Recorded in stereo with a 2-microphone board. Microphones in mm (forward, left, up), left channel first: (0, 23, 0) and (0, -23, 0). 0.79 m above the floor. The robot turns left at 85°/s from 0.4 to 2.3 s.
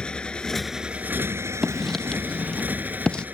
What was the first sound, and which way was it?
A motorcycle, 20° left.